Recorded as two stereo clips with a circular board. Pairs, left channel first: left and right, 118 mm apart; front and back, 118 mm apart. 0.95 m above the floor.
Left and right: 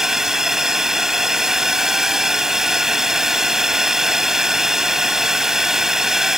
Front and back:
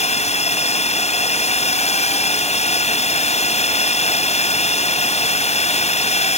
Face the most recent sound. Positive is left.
turn(degrees=-5)